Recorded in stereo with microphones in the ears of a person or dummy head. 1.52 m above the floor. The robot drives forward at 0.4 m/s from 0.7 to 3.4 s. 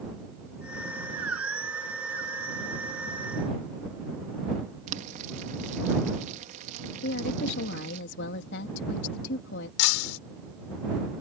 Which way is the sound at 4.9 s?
40° right (ahead or behind).